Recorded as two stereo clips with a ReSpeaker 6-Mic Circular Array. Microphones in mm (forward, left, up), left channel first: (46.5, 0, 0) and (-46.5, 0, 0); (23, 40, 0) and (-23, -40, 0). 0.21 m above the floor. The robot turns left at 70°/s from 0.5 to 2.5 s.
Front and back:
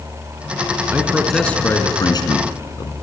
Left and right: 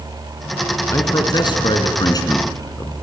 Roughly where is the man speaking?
Behind left.